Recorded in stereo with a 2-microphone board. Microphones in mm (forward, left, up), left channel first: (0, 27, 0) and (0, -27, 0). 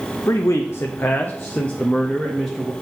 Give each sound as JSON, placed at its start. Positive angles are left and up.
{"t": 0.3, "sound": "a man speaking", "side_deg": 70, "distance_m": 0.8}